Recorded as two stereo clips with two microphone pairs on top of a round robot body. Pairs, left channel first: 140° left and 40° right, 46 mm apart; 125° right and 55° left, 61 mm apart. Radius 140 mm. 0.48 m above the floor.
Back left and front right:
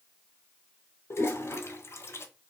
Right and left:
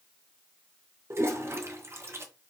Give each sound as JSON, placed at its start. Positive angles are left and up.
{"t": 1.1, "sound": "a toilet flushing", "azimuth_deg": 105, "distance_m": 0.9}